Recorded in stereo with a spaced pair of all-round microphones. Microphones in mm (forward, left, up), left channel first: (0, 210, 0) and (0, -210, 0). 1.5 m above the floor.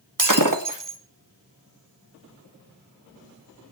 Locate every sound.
0.2 s breaking glass: 45° right (ahead or behind), 1.5 m